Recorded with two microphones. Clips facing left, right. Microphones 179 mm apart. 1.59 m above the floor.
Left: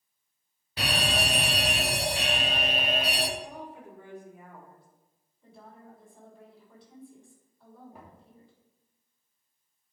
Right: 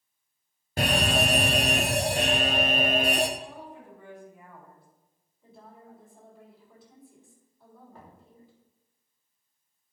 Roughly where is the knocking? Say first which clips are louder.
Even; centre.